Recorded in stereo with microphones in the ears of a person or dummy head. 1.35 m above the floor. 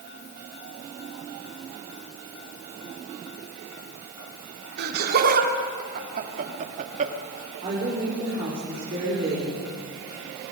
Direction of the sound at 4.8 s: 55° right (ahead or behind).